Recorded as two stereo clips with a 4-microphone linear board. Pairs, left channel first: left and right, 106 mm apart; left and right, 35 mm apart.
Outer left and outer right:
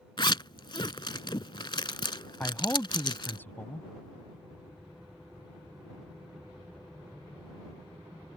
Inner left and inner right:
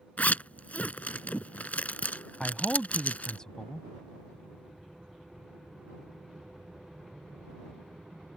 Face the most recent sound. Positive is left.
turn(degrees=20)  # may be behind; listen again after turning